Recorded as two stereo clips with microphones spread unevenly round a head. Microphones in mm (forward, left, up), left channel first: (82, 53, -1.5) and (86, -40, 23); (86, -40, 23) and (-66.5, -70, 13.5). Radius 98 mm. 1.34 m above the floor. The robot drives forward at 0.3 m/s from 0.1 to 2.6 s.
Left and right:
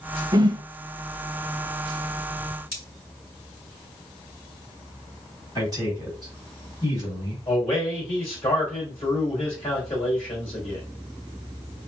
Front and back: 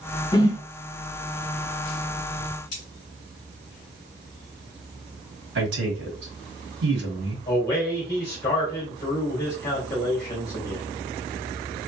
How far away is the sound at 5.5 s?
About 1.4 m.